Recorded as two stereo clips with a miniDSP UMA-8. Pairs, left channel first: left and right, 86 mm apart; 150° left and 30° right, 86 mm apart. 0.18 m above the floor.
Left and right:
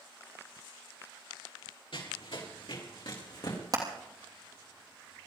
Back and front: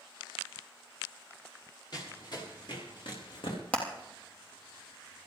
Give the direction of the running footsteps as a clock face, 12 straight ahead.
8 o'clock.